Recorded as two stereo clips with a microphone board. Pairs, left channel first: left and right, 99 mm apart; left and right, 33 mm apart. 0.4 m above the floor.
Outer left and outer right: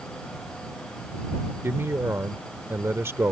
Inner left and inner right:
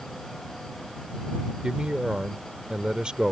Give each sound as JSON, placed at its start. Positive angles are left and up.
{"t": 1.6, "sound": "a man speaking", "side_deg": -25}